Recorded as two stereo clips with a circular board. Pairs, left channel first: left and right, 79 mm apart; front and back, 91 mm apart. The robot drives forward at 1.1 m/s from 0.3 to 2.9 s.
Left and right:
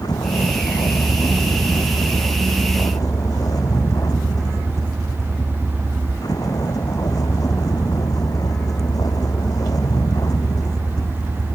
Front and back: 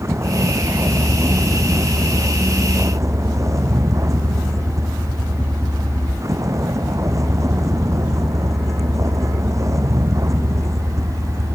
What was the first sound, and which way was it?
A vehicle, 125° left.